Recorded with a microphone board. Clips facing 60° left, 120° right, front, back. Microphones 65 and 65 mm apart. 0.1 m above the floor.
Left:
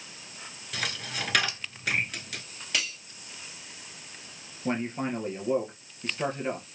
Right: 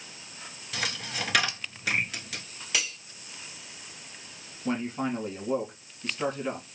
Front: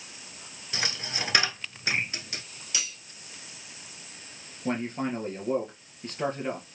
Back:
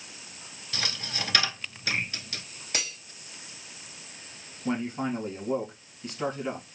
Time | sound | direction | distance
0.7 | a dropped coin | 35° right | 0.7 m
2.7 | cutlery clinking | 155° left | 1.1 m
4.7 | a man speaking | 25° left | 1.9 m